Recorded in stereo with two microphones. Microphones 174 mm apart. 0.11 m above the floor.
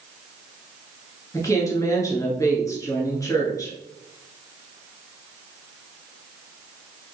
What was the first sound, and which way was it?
A woman speaking, 20° left (ahead or behind).